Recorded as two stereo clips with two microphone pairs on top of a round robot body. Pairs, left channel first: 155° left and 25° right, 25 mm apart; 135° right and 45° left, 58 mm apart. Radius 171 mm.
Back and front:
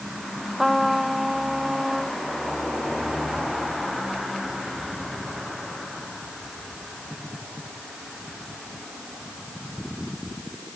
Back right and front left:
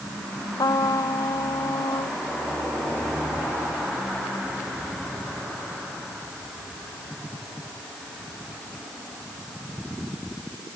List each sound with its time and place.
0.6 s a trumpet: 115° right